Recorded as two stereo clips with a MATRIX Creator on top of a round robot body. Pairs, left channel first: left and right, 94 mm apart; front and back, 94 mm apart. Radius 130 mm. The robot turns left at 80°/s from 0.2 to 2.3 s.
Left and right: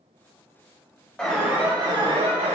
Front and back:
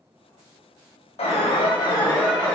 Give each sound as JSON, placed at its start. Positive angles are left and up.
{"t": 1.2, "sound": "an alarm", "azimuth_deg": 15, "distance_m": 4.5}